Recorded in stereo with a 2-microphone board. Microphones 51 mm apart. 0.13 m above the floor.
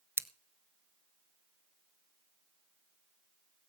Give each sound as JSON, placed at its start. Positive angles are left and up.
{"t": 0.2, "sound": "scissors", "side_deg": -50, "distance_m": 0.6}